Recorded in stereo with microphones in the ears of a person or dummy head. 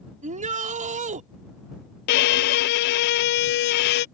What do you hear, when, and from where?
0.2 s a shout: 35° right (ahead or behind)
2.1 s a violin: 50° left (ahead or behind)